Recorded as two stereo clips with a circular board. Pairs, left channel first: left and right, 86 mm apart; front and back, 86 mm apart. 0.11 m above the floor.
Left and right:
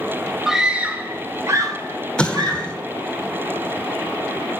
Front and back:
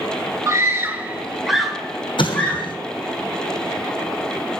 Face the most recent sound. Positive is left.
turn(degrees=10)